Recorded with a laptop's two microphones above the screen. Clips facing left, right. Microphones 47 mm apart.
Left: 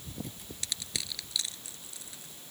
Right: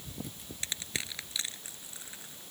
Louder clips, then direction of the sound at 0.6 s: Right 1 dB; 25° right (ahead or behind).